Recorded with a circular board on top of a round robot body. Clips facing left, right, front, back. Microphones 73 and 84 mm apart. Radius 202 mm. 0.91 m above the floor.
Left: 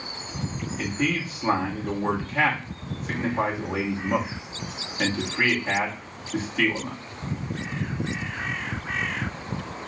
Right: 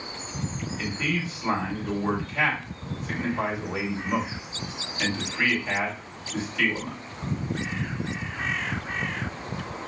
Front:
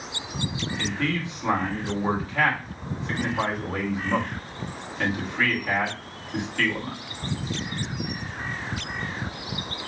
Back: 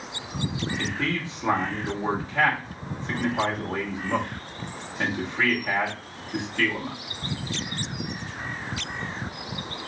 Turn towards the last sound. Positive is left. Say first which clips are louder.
# left 3 dB, front 3 dB
turn(degrees=125)